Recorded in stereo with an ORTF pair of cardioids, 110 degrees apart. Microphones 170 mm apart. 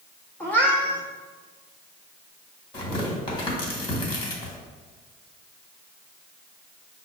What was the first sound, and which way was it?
A cat meowing, 10° left.